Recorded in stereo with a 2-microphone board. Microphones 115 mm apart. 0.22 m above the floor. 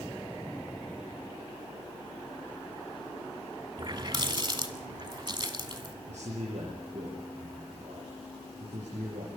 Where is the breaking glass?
No breaking glass in this recording.